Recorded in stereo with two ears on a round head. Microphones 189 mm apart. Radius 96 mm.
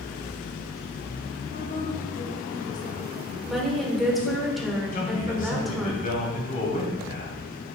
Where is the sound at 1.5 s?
40° left (ahead or behind), 1.1 m.